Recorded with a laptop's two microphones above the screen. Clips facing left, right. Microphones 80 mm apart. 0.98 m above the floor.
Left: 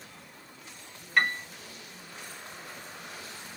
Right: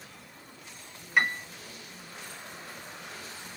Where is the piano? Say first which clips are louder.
Even; 10° right (ahead or behind), 1.1 m.